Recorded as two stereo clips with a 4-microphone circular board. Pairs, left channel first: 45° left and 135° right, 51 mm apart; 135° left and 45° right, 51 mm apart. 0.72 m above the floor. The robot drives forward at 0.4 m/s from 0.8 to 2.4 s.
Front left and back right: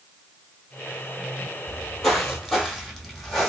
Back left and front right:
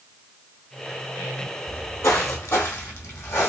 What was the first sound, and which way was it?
Footsteps, 130° left.